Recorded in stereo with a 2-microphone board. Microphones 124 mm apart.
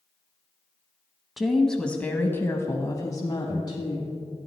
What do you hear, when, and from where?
1.4 s a woman speaking: centre (ahead or behind), 1.0 m; by 4.2 s 35° left (ahead or behind), 1.5 m